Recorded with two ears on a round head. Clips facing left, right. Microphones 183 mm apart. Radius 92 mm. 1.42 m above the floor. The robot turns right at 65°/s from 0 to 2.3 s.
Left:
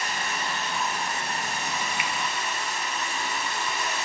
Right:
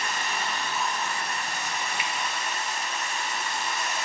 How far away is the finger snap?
About 0.6 m.